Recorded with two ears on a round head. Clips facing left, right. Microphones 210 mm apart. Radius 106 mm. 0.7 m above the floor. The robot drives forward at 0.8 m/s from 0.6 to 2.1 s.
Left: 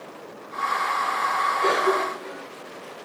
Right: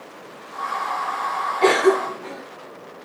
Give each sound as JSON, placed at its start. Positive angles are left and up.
{"t": 1.6, "sound": "a cough", "side_deg": -70, "distance_m": 1.7}